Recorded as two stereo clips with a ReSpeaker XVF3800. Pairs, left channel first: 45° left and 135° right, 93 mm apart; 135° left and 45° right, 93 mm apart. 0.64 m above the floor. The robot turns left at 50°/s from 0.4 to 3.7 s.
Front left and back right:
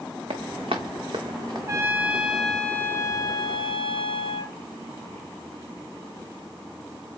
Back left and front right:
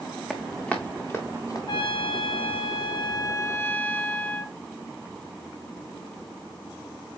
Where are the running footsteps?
140° right, 2 m; by 1.6 s 175° right, 2.5 m.